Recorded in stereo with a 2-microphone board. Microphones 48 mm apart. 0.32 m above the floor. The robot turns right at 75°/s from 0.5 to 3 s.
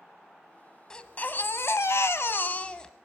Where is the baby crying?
20° left, 0.8 m; by 2.9 s 170° left, 0.8 m.